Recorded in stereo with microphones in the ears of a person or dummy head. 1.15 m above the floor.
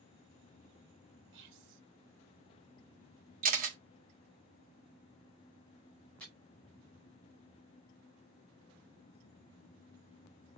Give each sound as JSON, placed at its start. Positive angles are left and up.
{"t": 1.3, "sound": "whispering", "side_deg": -60, "distance_m": 0.7}
{"t": 3.4, "sound": "a camera shutter", "side_deg": -45, "distance_m": 0.7}
{"t": 6.2, "sound": "chopping", "side_deg": 5, "distance_m": 2.0}